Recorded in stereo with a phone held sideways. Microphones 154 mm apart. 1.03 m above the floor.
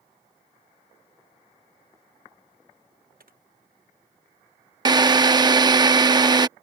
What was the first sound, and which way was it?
Typing on a keyboard, 70° right (ahead or behind).